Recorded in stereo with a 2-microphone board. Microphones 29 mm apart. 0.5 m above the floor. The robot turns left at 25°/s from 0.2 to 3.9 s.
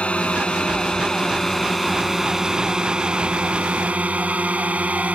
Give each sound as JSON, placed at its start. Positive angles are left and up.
{"t": 0.0, "sound": "a drone", "side_deg": 45}